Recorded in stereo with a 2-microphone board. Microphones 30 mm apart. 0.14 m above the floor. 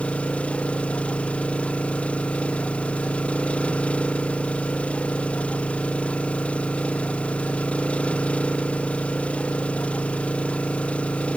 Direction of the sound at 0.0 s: 45° left (ahead or behind).